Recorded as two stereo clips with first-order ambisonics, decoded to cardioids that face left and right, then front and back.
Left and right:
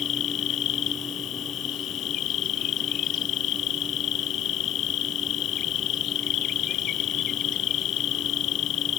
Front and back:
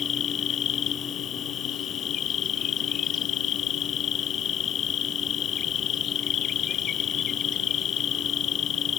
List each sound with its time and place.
0.0 s an insect: 50° left